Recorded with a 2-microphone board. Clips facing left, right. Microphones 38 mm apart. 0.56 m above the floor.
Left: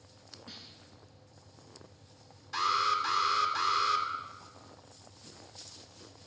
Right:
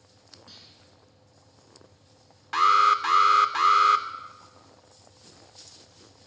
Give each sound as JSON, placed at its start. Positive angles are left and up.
{"t": 0.5, "sound": "a snare drum", "side_deg": 10, "distance_m": 4.0}
{"t": 2.5, "sound": "an alarm", "side_deg": -55, "distance_m": 1.0}